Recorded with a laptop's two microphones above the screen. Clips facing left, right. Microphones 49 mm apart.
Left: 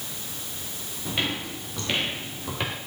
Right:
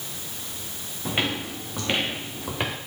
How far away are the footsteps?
About 4.5 m.